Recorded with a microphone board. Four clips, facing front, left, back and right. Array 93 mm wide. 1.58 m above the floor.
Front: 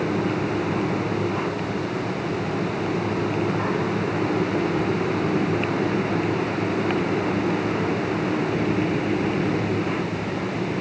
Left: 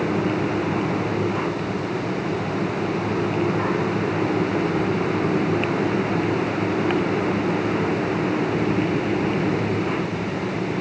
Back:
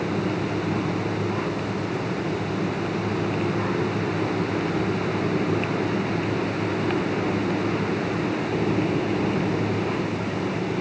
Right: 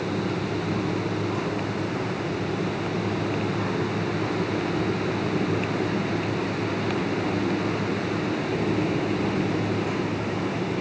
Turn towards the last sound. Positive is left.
No sound to turn to.